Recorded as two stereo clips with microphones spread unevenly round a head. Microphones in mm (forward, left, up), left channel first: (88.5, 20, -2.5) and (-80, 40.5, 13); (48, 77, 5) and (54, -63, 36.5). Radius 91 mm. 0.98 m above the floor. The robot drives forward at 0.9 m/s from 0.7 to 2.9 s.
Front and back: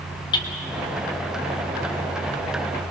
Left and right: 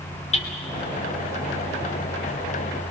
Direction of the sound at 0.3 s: 55° left.